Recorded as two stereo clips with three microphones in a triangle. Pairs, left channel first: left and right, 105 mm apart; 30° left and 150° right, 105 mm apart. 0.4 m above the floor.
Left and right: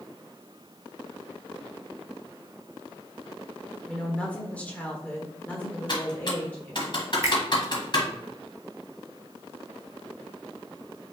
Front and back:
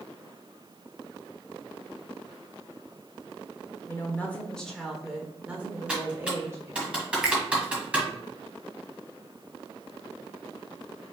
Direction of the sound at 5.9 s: 130° left.